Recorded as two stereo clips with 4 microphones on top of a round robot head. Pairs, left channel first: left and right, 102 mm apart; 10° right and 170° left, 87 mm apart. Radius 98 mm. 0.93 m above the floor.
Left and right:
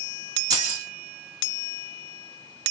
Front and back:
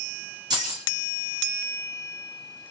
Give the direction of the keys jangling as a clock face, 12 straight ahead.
5 o'clock.